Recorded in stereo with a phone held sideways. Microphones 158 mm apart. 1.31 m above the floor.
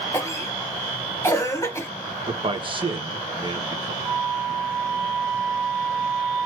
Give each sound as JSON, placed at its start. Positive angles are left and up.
{"t": 0.1, "sound": "a cough", "side_deg": 15, "distance_m": 1.4}
{"t": 2.3, "sound": "a man speaking", "side_deg": -35, "distance_m": 1.5}
{"t": 4.0, "sound": "a flute", "side_deg": -40, "distance_m": 1.4}